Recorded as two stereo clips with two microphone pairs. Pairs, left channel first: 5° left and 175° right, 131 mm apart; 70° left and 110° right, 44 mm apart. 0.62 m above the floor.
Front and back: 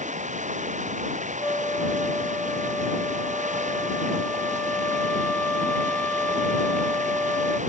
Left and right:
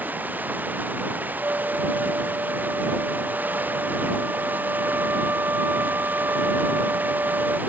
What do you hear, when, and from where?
0.0 s running water: 155° right
1.4 s a flute: 75° right